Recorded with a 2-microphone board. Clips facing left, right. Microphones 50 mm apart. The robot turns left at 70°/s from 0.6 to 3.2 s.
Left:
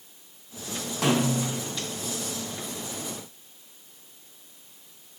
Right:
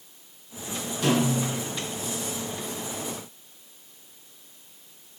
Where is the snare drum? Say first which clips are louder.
Right 1 dB; 100° left, 4.5 m; by 1.6 s 60° left, 4.5 m.